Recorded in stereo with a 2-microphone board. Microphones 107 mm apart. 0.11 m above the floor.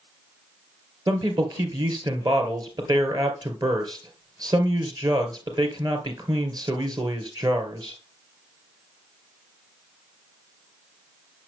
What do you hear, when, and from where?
1.1 s a man speaking: 35° right (ahead or behind), 2.5 m